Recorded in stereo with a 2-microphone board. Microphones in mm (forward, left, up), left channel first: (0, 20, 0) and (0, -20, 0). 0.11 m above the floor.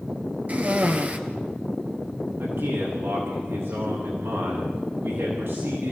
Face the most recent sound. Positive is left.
turn(degrees=-75)  # may be behind; listen again after turning